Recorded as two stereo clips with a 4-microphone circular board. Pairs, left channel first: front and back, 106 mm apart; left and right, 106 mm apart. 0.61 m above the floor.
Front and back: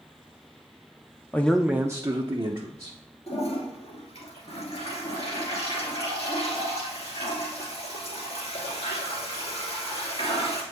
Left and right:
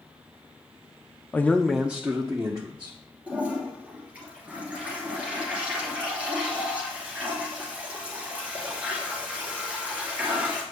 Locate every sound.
1.3 s a man speaking: 45° left, 0.6 m; by 2.9 s 150° right, 1.3 m
3.3 s a toilet flushing: 10° right, 2.5 m